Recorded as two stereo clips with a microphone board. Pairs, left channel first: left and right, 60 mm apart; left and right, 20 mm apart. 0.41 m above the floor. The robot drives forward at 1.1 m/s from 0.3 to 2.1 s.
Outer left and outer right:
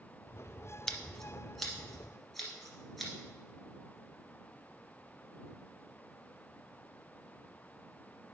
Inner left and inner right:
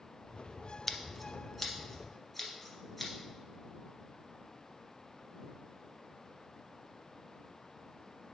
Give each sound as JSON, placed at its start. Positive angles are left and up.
{"t": 0.9, "sound": "scissors", "side_deg": 10, "distance_m": 0.6}